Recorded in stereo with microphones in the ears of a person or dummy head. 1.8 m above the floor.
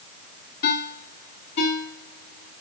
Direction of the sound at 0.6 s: 60° left (ahead or behind).